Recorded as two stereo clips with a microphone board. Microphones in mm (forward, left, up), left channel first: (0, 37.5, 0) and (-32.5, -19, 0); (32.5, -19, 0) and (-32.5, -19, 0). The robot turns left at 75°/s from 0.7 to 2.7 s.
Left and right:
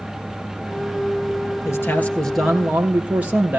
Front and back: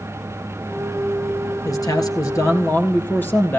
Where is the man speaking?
25° left, 3 m; by 3.6 s 55° right, 3 m.